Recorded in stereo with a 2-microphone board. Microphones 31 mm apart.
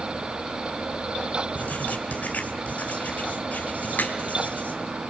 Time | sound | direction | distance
1.6 | writing | 45° left (ahead or behind) | 2.5 m
4.0 | a crack | 80° left | 3.5 m